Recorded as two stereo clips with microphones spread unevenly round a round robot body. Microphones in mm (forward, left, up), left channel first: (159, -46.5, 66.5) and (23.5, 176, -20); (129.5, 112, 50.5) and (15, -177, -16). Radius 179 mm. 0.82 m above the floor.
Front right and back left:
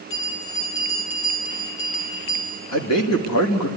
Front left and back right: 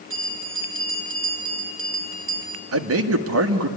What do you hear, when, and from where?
0.1 s a bell: 65° right, 3 m
2.7 s a man speaking: 105° right, 1.4 m